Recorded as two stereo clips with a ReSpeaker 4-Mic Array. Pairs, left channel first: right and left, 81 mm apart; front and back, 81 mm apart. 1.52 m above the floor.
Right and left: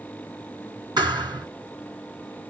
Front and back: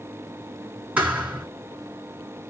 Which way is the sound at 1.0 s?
110° left.